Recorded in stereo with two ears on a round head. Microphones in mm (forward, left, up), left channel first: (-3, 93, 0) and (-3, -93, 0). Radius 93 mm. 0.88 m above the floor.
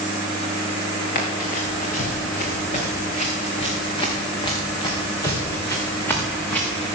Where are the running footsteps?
45° left (ahead or behind), 4.5 m; by 7.0 s 5° left (ahead or behind), 4 m.